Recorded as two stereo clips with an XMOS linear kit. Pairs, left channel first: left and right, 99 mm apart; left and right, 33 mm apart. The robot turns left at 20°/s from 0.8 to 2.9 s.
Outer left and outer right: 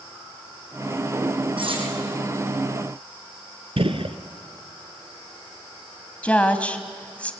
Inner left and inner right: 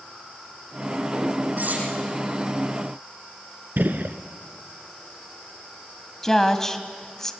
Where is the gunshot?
70° right (ahead or behind), 1.0 m.